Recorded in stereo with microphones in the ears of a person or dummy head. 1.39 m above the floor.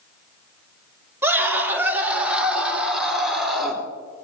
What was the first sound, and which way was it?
A scream, 10° right (ahead or behind).